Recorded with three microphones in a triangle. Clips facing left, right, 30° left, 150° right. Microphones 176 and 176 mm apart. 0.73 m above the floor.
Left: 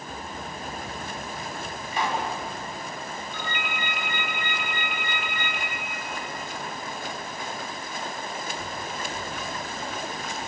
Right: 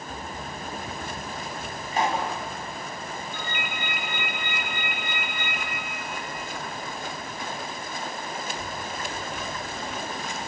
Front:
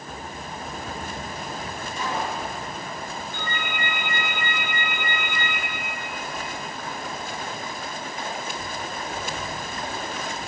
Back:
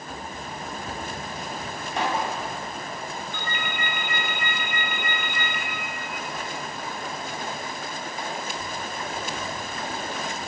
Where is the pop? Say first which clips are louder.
Right 2 dB, back 3 dB; 135° right, 5.5 m.